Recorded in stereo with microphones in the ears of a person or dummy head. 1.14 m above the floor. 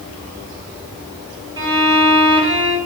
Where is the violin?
25° right (ahead or behind), 1.9 m.